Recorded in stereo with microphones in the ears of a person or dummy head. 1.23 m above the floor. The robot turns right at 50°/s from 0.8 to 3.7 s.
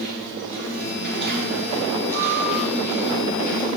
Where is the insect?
90° right, 1.8 m; by 3.8 s 55° left, 1.8 m.